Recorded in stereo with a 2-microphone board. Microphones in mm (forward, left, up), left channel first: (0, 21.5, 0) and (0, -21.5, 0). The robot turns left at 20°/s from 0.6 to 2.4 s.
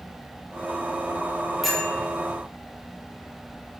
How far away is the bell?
About 1.0 m.